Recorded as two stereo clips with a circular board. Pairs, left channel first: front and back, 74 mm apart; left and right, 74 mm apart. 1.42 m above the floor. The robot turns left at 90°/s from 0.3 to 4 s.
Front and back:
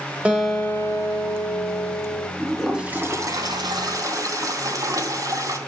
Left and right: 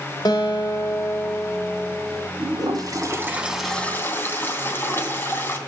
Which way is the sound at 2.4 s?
70° right.